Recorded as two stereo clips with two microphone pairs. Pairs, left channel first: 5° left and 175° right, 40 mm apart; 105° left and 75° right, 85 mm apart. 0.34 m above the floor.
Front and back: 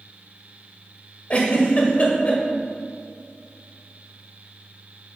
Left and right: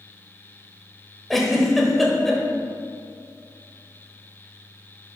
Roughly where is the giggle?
Ahead.